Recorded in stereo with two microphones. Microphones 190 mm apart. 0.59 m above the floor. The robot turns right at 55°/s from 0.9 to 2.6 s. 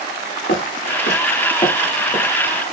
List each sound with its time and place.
0.5 s footsteps: 75° left (ahead or behind), 4.5 m; by 2.3 s 20° right (ahead or behind), 3.5 m